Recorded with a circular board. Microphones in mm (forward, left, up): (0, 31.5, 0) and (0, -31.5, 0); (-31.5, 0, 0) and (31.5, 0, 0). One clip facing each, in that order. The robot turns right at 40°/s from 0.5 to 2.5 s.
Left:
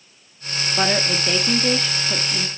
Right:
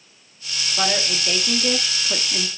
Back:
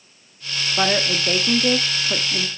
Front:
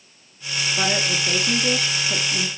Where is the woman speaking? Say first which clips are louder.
Left 2 dB, back 4 dB; 145° left, 0.9 m; by 2.5 s 150° right, 0.9 m.